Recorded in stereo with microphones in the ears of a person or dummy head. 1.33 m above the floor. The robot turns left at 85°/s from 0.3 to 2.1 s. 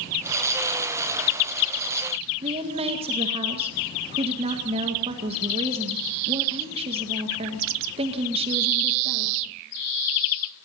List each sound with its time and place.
2.4 s a woman speaking: 35° right (ahead or behind), 1.7 m